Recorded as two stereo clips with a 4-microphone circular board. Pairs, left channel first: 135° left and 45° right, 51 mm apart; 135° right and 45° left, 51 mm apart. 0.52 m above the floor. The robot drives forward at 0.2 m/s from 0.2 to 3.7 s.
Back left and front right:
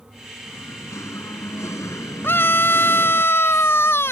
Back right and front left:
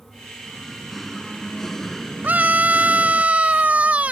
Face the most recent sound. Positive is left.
turn(degrees=105)